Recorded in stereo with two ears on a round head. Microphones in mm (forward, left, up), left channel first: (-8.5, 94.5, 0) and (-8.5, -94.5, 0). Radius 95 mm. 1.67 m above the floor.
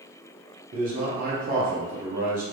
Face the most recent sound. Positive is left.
turn(degrees=-40)  # may be behind; listen again after turning